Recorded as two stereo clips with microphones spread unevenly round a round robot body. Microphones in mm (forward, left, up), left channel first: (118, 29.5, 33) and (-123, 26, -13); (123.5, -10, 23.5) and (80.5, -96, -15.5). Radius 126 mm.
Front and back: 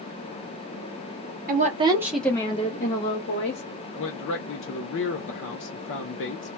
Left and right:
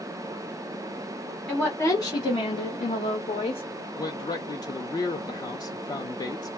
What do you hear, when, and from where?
1.5 s a woman speaking: 170° left, 0.8 m; by 3.6 s 45° left, 1.3 m
3.9 s a man speaking: 5° left, 0.6 m